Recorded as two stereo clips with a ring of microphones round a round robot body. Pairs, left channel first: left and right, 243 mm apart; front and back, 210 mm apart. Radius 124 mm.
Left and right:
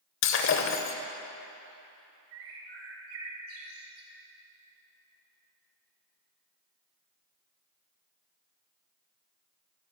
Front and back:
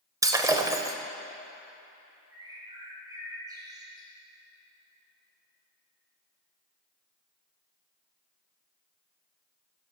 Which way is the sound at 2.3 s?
110° right.